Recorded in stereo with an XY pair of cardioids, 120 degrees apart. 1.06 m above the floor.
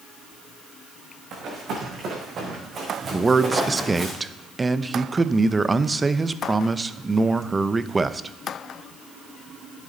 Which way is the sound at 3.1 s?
20° right.